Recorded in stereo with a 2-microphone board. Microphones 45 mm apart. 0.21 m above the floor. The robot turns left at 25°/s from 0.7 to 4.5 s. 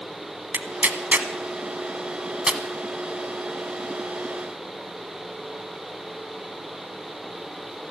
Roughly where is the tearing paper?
Right.